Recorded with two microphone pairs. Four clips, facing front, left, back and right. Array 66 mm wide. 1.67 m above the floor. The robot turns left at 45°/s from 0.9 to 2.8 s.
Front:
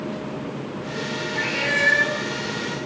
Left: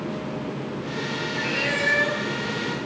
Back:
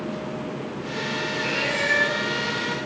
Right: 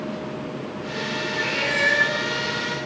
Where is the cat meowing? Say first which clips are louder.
Right 2 dB, front 5 dB; 10° right, 8.5 m; by 2.2 s 45° right, 8.5 m.